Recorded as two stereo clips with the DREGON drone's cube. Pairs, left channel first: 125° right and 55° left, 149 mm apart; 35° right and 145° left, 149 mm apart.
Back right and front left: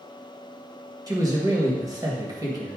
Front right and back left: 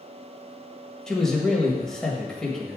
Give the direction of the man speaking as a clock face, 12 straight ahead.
11 o'clock.